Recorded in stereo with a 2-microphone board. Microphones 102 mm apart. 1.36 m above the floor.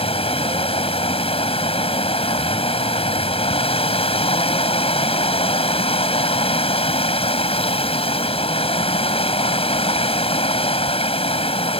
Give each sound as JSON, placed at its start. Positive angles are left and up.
{"t": 0.0, "sound": "running water", "side_deg": 75}